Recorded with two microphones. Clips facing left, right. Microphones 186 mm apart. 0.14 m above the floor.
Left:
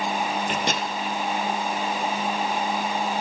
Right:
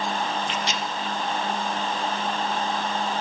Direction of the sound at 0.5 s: 55° left (ahead or behind).